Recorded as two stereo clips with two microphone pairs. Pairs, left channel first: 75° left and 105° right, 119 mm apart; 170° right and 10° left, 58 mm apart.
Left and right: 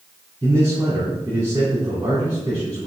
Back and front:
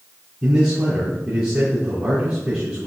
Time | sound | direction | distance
0.4 | a man speaking | 45° right | 2.5 m